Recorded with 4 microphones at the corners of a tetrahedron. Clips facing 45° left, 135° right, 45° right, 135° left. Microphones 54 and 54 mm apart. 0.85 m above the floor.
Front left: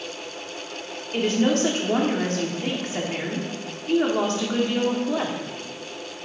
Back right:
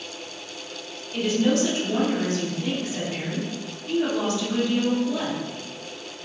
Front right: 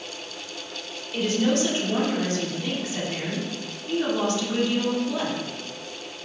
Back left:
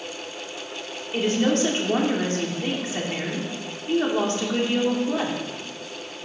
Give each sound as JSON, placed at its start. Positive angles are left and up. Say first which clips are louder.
{"t": 1.1, "sound": "a woman speaking", "louder": "front left 1 dB, back left 1 dB", "azimuth_deg": 85, "distance_m": 2.5}